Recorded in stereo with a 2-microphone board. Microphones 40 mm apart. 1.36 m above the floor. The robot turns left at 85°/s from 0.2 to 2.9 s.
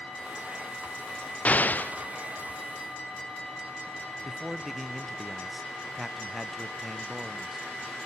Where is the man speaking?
5° right (ahead or behind), 0.6 m.